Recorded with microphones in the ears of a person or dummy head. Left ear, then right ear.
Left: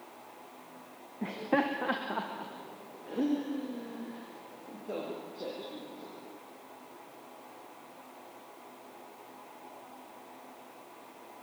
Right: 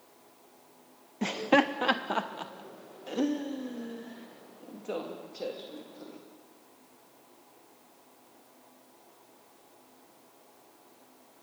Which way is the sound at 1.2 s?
75° right (ahead or behind).